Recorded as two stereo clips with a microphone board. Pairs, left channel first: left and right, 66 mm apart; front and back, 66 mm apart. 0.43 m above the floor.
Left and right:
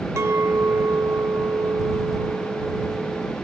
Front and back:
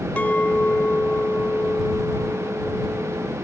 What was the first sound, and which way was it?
A clink, 60° right.